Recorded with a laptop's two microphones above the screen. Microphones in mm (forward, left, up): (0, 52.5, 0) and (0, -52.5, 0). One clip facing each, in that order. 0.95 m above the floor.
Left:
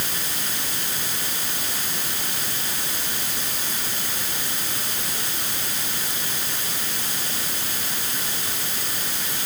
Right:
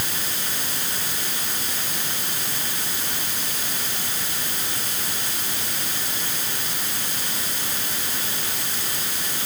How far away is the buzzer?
I don't hear a buzzer.